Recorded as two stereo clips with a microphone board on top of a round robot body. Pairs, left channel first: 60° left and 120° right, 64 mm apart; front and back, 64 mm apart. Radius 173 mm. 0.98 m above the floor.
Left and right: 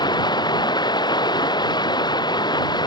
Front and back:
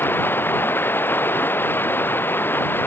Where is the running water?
60° left.